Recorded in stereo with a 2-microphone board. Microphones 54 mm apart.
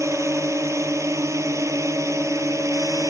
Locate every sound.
0.0 s a drone: 70° right (ahead or behind); by 3.1 s 75° right (ahead or behind)